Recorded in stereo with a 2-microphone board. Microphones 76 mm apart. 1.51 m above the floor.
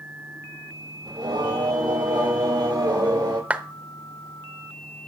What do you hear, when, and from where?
1.1 s singing: 65° right (ahead or behind), 6.5 m
3.5 s a clap: 15° right (ahead or behind), 0.9 m